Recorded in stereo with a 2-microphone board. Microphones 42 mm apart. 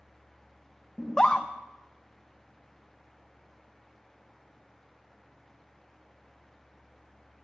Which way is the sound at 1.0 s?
15° left (ahead or behind).